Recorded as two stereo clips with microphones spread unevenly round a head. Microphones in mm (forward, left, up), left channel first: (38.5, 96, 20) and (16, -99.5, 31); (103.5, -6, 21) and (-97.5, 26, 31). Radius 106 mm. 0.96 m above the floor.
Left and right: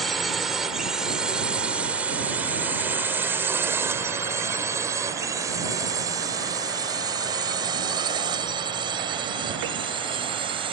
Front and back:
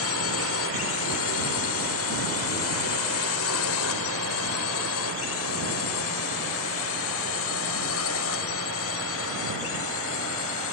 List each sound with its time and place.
0.0 s a drone: 5° right; by 10.7 s 30° right